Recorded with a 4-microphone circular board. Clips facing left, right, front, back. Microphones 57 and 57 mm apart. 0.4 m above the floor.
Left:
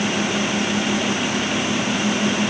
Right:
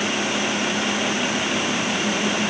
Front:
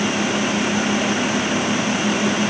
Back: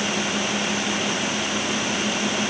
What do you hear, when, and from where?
Only background noise.